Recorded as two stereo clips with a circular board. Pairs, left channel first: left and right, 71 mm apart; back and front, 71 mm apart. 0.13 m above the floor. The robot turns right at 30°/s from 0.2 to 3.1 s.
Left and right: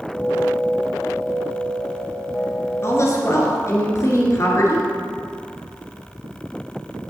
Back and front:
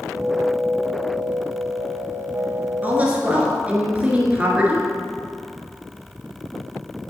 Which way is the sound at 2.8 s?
55° left.